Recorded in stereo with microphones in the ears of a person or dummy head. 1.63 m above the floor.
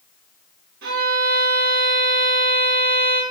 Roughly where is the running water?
No running water in this recording.